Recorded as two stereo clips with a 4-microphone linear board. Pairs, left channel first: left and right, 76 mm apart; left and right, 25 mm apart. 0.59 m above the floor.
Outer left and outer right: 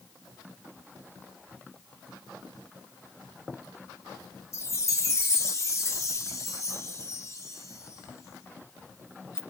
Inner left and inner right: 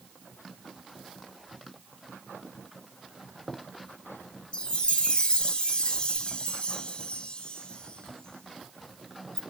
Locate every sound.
4.5 s a chime: 40° left (ahead or behind), 0.6 m